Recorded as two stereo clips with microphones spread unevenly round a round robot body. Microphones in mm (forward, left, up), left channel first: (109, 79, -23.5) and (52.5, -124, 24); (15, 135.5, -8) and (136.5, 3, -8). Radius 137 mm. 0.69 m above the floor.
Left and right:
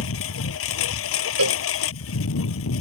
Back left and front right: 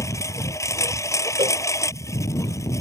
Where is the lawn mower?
60° left.